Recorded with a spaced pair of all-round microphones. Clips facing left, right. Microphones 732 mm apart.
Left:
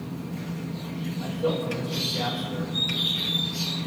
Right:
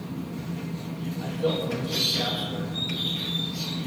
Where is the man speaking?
45° right (ahead or behind), 8.5 m.